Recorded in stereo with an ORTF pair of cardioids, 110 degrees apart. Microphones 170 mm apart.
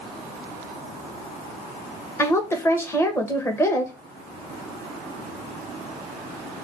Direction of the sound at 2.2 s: 15° left.